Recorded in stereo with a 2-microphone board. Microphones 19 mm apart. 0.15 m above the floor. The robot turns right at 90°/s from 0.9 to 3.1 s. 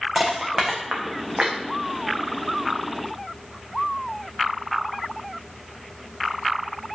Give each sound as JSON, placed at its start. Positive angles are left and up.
{"t": 0.1, "sound": "crushing", "side_deg": -40, "distance_m": 1.9}